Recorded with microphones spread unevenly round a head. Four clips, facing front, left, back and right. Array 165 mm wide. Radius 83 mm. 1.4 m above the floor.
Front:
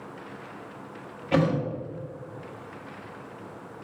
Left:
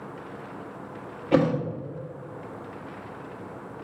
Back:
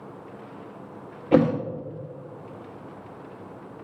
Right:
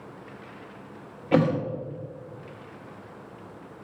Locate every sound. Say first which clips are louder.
1.3 s a thud: even, back 5 dB; 160° right, 0.8 m